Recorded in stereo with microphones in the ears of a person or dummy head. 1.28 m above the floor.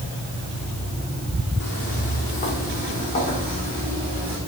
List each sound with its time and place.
1.6 s footsteps: 45° left (ahead or behind), 3.5 m; by 4.4 s 30° left (ahead or behind), 4.5 m